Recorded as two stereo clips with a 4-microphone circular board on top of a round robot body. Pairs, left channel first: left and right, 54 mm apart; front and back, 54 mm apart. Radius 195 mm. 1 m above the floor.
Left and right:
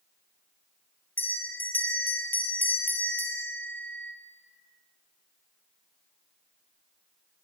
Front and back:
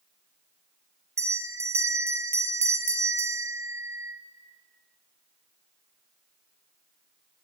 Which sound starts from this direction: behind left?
A bell, at 1.2 s.